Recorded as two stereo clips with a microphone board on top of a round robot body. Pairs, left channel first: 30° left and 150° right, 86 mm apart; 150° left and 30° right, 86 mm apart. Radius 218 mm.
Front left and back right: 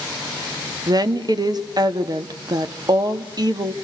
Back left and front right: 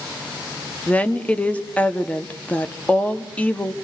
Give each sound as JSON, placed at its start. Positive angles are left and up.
{"t": 0.9, "sound": "a woman speaking", "azimuth_deg": -140, "distance_m": 1.6}